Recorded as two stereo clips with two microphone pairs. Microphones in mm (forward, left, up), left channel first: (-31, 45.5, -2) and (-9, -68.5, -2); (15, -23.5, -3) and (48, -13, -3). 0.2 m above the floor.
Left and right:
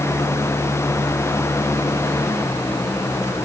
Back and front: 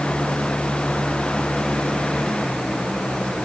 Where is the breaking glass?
No breaking glass in this recording.